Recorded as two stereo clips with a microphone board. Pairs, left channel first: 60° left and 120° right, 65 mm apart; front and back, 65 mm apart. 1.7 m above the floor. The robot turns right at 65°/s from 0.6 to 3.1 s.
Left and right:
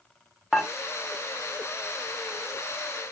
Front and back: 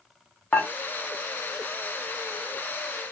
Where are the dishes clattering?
35° right, 0.7 m; by 0.7 s 30° right, 0.7 m.